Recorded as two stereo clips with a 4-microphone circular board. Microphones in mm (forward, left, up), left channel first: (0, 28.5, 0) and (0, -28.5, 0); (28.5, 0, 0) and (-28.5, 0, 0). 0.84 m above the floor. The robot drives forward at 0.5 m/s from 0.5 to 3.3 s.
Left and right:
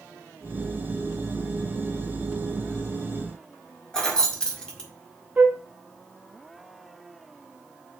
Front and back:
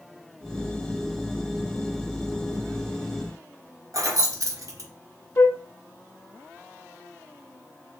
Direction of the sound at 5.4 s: 35° right.